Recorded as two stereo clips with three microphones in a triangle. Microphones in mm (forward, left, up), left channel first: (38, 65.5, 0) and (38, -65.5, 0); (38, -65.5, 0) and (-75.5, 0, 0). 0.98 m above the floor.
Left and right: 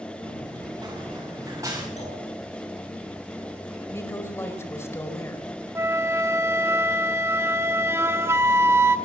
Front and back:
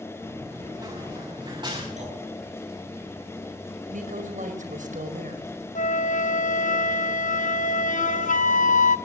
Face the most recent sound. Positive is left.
turn(degrees=-15)